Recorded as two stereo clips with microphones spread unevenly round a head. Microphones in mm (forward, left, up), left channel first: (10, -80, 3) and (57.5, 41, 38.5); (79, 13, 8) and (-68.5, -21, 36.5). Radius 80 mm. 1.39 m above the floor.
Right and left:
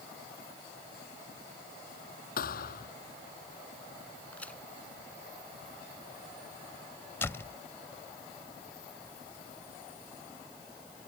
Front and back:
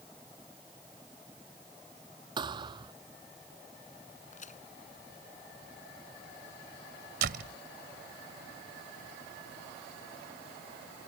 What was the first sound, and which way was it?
A thud, 105° right.